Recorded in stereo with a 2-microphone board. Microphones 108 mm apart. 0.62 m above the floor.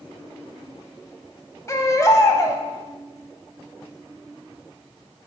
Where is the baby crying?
30° left (ahead or behind), 1.0 m.